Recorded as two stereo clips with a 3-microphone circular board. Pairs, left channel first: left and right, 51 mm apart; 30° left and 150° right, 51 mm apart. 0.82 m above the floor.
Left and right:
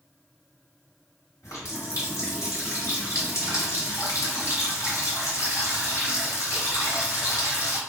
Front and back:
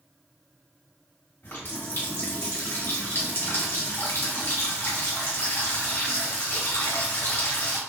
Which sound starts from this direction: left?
A running tap, at 1.4 s.